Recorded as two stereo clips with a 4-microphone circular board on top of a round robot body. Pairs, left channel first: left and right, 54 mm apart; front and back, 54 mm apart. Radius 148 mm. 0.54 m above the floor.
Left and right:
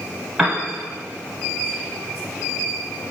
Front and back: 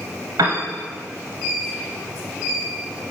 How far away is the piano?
About 0.8 m.